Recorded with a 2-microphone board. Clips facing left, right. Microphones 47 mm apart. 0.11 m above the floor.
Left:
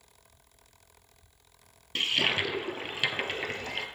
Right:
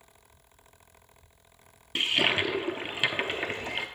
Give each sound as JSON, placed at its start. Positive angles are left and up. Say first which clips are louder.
{"t": 1.9, "sound": "a toilet flushing", "louder": "right 2 dB", "side_deg": -15, "distance_m": 0.6}